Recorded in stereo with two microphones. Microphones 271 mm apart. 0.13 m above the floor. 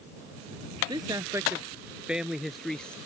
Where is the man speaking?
15° right (ahead or behind); by 3.0 s 5° left (ahead or behind).